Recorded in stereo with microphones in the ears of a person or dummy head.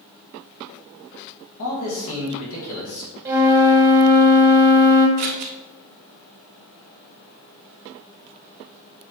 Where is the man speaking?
80° left, 2.5 m.